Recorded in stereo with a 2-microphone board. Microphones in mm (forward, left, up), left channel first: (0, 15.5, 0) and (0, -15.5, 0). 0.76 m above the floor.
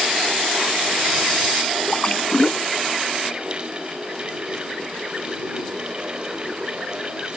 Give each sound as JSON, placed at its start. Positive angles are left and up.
{"t": 1.9, "sound": "a splash", "side_deg": 35}